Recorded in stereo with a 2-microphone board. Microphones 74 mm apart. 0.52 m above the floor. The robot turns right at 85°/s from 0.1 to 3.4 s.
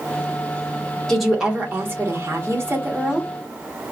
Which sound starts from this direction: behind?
A woman speaking, at 1.1 s.